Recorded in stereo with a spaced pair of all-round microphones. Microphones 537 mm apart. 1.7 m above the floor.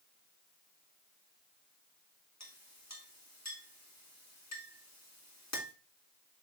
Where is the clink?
30° left (ahead or behind), 2.5 m.